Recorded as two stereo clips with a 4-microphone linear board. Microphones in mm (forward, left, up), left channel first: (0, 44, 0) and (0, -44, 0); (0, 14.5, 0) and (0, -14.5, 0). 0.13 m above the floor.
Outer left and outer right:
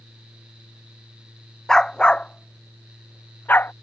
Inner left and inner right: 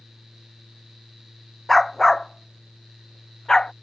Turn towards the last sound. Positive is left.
turn(degrees=20)  # may be behind; listen again after turning